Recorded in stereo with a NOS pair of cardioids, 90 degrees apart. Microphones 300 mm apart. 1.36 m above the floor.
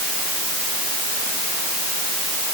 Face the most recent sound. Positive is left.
No sound to turn to.